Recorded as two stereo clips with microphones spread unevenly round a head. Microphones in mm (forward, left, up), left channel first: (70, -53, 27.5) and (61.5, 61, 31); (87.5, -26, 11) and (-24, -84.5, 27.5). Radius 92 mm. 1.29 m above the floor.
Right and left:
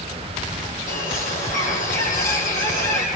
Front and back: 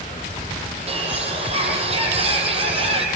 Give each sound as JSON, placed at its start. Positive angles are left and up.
{"t": 0.9, "sound": "a bird", "azimuth_deg": -115, "distance_m": 7.0}